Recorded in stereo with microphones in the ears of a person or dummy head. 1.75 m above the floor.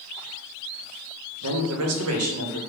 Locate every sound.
1.4 s a man speaking: 80° right, 0.8 m